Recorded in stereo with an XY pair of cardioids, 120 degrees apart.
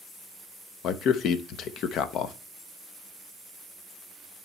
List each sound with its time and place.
0.8 s a man speaking: 65° left, 0.7 m